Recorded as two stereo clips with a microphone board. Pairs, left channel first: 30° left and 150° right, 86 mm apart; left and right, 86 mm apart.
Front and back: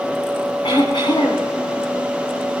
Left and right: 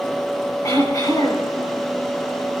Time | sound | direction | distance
0.6 | throat clearing | 45° left | 9.5 m